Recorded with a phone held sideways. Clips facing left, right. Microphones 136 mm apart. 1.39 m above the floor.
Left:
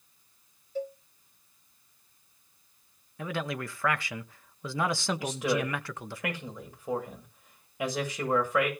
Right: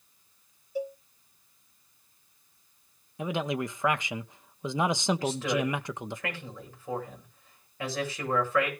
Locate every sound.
0.8 s a cowbell: 10° right (ahead or behind), 1.2 m
3.2 s a man speaking: 20° right (ahead or behind), 1.1 m
5.2 s a man speaking: 15° left (ahead or behind), 7.5 m